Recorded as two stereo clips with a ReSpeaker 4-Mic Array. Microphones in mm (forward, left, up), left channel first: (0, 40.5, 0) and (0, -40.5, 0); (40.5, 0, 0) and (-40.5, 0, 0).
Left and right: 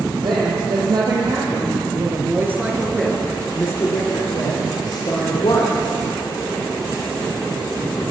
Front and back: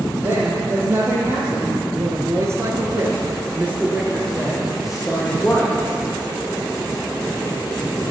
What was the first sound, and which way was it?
A woman speaking, 115° right.